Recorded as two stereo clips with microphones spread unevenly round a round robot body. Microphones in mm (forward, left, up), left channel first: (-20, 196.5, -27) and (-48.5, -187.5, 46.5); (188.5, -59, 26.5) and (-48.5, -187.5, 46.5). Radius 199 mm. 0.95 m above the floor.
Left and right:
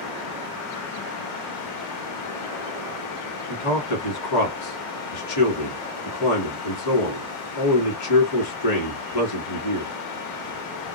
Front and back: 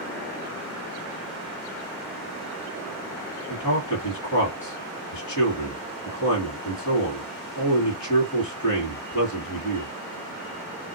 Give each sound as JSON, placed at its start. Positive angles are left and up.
{"t": 3.5, "sound": "a man speaking", "azimuth_deg": 65, "distance_m": 1.7}